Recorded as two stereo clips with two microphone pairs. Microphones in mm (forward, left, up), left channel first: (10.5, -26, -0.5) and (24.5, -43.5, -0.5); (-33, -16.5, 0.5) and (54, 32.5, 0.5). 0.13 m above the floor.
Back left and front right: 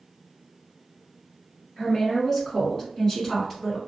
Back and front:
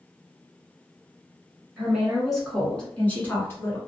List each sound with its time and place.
1.8 s a woman speaking: 95° left, 1.5 m; by 3.8 s straight behind, 1.5 m